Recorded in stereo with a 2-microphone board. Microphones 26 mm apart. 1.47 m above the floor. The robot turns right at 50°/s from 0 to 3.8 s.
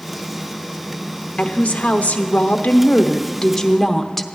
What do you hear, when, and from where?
1.4 s a woman speaking: 55° left, 0.9 m; by 4.3 s 175° left, 0.9 m